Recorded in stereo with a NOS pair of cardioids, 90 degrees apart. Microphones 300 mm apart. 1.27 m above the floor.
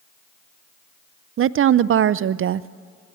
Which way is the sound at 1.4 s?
45° right.